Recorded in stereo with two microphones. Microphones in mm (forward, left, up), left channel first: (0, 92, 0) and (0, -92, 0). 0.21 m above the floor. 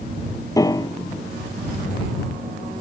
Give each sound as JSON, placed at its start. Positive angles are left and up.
{"t": 0.6, "sound": "a piano", "side_deg": 20}